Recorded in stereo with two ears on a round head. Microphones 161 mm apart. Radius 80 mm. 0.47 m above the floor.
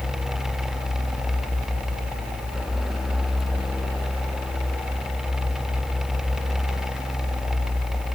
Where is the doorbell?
I don't hear a doorbell.